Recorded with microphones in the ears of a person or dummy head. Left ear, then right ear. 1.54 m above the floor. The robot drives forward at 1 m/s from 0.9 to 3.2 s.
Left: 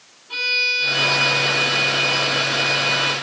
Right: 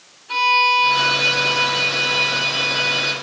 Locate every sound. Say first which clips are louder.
0.3 s a violin: right 4 dB; 65° right (ahead or behind), 5.5 m; by 3.1 s 45° right (ahead or behind), 6.5 m